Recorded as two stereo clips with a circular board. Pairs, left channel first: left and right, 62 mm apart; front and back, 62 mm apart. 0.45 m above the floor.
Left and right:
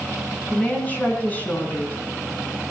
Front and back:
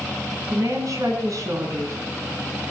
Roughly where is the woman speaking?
Behind left.